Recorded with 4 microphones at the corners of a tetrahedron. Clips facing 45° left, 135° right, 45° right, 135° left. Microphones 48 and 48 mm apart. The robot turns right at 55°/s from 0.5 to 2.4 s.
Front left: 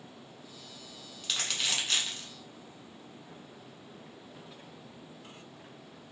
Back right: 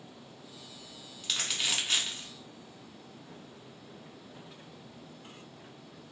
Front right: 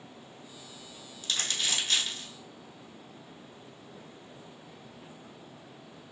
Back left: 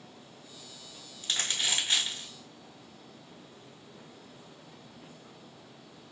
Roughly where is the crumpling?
Behind left.